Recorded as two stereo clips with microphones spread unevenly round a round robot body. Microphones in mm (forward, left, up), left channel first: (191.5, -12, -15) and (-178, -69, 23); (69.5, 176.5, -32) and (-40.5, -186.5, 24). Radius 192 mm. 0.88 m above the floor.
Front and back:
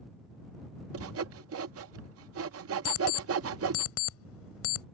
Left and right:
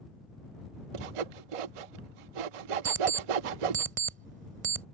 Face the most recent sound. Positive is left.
turn(degrees=-45)